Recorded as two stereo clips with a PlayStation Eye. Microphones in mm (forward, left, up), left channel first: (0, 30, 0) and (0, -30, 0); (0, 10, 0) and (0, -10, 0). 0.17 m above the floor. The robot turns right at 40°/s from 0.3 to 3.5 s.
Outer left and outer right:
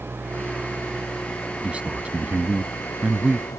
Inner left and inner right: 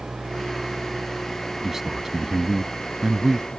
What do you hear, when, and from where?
0.0 s an engine running: 35° right; by 3.6 s 95° left
1.6 s a man speaking: 20° right (ahead or behind); by 3.5 s 15° right (ahead or behind)